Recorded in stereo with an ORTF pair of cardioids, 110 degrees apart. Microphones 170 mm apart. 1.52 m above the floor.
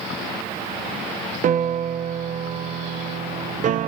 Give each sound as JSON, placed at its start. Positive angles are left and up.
{"t": 1.4, "sound": "a piano", "azimuth_deg": -50, "distance_m": 0.6}